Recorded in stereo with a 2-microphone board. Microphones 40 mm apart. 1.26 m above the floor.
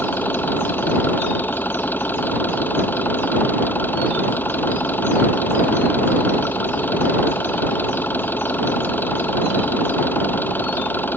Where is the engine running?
55° left (ahead or behind).